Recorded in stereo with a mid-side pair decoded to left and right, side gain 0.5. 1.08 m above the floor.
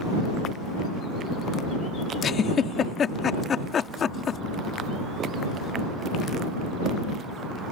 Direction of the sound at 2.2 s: 45° left.